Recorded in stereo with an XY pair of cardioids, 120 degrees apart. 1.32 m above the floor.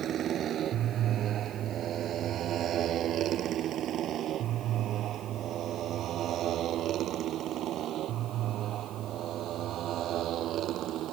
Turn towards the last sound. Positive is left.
turn(degrees=-65)